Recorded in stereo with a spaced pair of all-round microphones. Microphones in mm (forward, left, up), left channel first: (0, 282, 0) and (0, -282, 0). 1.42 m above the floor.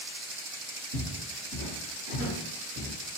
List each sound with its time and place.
0.9 s footsteps: 50° right (ahead or behind), 2 m; by 2.9 s 10° right (ahead or behind), 1.4 m